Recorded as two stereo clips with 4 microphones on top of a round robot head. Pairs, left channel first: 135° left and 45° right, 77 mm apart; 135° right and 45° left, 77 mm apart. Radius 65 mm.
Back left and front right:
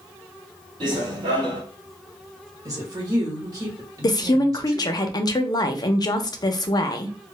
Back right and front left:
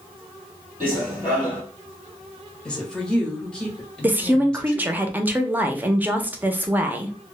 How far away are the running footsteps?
About 1.5 m.